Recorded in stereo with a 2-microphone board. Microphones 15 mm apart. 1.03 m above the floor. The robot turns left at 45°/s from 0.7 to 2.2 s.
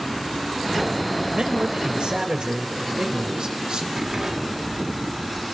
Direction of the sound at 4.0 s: 35° right (ahead or behind).